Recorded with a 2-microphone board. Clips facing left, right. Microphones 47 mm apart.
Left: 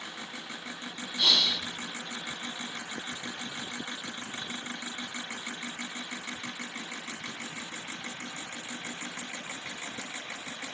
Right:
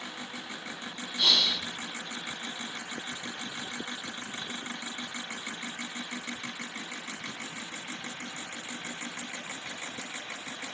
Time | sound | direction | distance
1.2 | breathing | centre (ahead or behind) | 1.6 m